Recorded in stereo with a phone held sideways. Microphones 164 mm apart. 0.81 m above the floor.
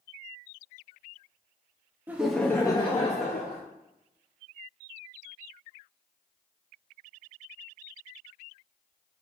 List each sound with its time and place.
2.1 s laughter: 10° right (ahead or behind), 0.5 m; by 3.6 s 60° left (ahead or behind), 0.8 m